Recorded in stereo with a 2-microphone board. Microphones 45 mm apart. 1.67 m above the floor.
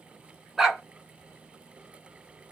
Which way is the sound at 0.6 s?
5° right (ahead or behind).